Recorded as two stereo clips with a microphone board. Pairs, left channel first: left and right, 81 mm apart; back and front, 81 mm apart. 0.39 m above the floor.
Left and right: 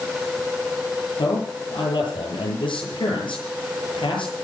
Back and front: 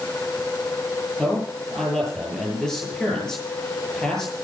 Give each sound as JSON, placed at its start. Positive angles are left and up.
{"t": 1.2, "sound": "a man speaking", "azimuth_deg": 95, "distance_m": 9.5}